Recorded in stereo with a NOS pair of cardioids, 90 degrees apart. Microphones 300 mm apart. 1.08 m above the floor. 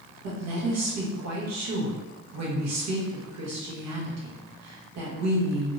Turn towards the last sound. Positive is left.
turn(degrees=-65)